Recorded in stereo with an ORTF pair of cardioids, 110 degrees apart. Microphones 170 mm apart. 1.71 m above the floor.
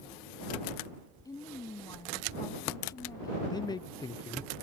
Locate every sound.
1.2 s a woman speaking: 20° left
3.5 s a man speaking: 25° left